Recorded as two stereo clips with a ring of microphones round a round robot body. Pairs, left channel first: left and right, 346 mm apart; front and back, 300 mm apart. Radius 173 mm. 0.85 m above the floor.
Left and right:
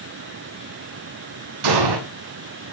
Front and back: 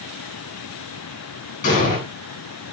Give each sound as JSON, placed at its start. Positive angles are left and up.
{"t": 1.6, "sound": "an explosion", "azimuth_deg": -70, "distance_m": 7.5}